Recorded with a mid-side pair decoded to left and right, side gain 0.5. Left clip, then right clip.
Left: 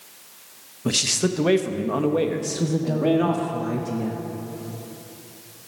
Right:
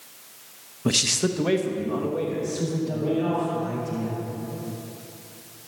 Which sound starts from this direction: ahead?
A man speaking, at 0.8 s.